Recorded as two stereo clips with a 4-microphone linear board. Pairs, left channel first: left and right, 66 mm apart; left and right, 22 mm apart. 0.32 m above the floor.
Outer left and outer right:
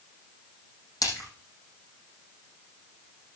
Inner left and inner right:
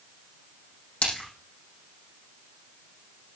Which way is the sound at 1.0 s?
70° left (ahead or behind).